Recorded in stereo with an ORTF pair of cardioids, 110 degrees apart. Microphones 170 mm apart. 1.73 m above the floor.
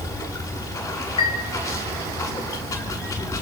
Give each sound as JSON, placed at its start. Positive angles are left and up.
{"t": 0.0, "sound": "running water", "azimuth_deg": 20, "distance_m": 7.0}
{"t": 1.2, "sound": "a chime", "azimuth_deg": 30, "distance_m": 3.5}